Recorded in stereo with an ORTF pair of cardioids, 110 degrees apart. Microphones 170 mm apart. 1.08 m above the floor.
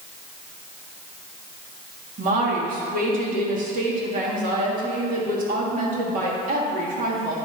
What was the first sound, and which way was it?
A woman speaking, 55° right.